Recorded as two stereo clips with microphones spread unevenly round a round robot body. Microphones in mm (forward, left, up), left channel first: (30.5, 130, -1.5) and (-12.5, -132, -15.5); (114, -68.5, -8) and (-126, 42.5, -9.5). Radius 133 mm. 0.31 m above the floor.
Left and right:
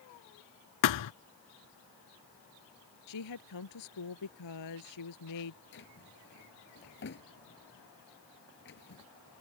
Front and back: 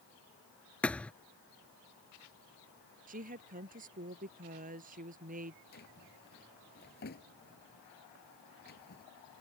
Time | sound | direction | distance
0.8 | a thud | 60° left | ?
3.1 | a woman speaking | 95° left | ?
5.7 | a drawer | 30° left | ?